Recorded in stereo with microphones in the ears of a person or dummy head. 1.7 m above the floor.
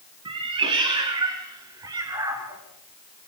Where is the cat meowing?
30° right (ahead or behind), 2 m; by 2.6 s 20° right (ahead or behind), 3.5 m.